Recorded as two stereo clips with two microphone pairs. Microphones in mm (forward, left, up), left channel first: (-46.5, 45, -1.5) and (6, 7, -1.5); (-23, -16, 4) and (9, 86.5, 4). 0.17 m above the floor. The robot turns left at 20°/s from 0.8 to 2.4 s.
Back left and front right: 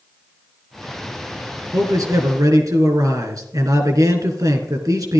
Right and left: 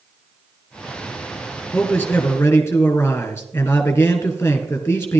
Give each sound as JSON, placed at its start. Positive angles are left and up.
{"t": 1.7, "sound": "a man speaking", "azimuth_deg": -25, "distance_m": 2.5}